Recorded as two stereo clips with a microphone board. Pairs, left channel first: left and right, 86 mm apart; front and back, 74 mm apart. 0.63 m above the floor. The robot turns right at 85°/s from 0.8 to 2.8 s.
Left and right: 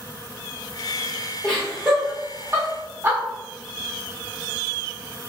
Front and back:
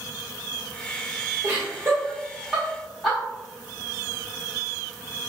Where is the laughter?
165° left, 1.4 m; by 3.2 s 80° right, 1.4 m.